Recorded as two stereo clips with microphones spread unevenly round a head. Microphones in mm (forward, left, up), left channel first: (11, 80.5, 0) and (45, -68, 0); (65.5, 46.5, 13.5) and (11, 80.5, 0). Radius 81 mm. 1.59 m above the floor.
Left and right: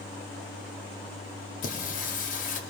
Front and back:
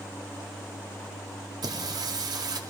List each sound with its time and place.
1.6 s singing: 140° left, 1.8 m